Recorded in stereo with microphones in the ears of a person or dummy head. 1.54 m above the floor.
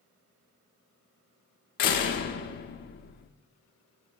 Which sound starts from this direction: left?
A door slam, at 1.8 s.